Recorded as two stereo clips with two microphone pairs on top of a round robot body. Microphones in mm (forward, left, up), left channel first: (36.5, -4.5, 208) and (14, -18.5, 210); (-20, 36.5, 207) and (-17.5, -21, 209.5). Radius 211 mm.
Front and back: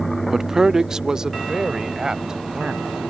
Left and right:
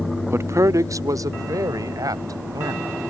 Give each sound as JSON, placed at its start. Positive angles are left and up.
{"t": 0.3, "sound": "a man speaking", "azimuth_deg": -70}